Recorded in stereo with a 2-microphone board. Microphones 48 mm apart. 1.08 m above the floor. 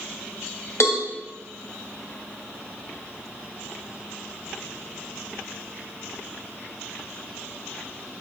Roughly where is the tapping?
I don't hear tapping.